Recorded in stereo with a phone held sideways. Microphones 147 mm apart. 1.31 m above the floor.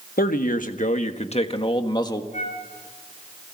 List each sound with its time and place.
0.2 s a man speaking: 75° left (ahead or behind), 1.5 m; by 2.2 s 25° left (ahead or behind), 1.5 m
2.3 s a flute: 55° left (ahead or behind), 4 m